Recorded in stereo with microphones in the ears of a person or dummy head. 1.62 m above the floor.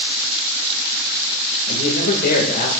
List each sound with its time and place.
1.7 s a man speaking: 55° left (ahead or behind), 1.9 m